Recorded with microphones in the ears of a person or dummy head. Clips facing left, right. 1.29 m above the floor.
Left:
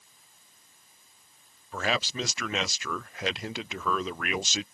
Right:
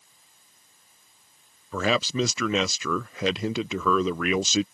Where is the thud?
No thud in this recording.